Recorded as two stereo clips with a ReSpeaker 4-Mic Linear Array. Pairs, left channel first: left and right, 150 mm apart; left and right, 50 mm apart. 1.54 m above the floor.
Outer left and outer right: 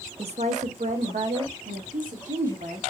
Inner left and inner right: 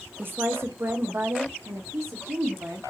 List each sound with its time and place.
0.2 s a woman speaking: 45° right (ahead or behind), 0.5 m; by 2.8 s 70° right (ahead or behind), 1.8 m